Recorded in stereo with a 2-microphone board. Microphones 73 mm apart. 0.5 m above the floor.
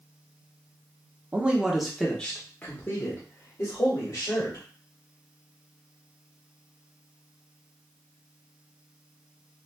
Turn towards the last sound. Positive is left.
turn(degrees=45)  # may be behind; listen again after turning